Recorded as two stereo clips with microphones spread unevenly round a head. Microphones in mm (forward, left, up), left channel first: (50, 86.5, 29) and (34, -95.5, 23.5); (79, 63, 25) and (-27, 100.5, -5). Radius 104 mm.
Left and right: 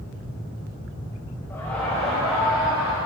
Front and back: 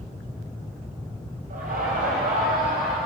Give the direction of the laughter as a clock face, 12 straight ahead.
6 o'clock.